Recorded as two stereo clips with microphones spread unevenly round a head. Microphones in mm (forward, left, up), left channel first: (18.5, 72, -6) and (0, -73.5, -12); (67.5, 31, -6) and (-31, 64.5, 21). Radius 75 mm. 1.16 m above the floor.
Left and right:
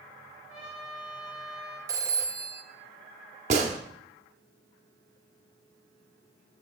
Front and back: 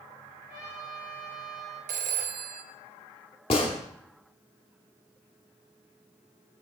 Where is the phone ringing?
170° right, 0.5 m.